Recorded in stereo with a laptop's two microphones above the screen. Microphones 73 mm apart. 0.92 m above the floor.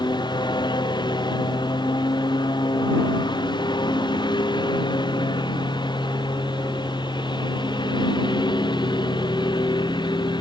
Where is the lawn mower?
75° left (ahead or behind); by 10.4 s 85° left.